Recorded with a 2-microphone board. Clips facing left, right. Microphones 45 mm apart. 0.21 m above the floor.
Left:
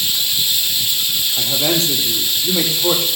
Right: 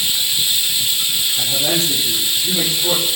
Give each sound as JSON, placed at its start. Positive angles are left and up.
{"t": 0.0, "sound": "running water", "side_deg": -10, "distance_m": 1.3}
{"t": 1.4, "sound": "a man speaking", "side_deg": 55, "distance_m": 5.0}